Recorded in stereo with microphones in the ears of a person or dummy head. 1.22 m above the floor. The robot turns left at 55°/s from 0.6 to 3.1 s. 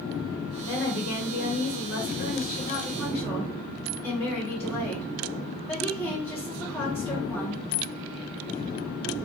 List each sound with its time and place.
0.6 s a woman speaking: 155° left, 1.3 m; by 7.6 s 15° left, 1.3 m